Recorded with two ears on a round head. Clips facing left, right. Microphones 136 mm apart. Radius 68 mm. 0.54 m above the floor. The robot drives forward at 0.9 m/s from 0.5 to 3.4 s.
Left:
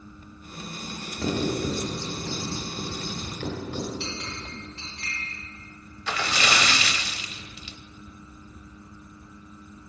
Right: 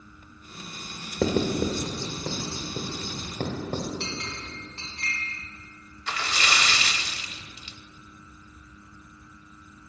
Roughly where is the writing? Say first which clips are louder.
Right 2 dB; right.